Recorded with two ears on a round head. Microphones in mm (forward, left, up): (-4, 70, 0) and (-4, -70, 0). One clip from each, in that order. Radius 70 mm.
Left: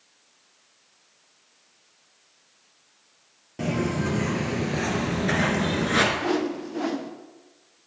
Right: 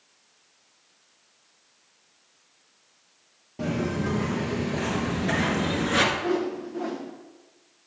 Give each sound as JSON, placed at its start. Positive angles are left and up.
{"t": 3.6, "sound": "footsteps", "side_deg": 35, "distance_m": 2.0}
{"t": 6.2, "sound": "a whoosh", "side_deg": 65, "distance_m": 0.8}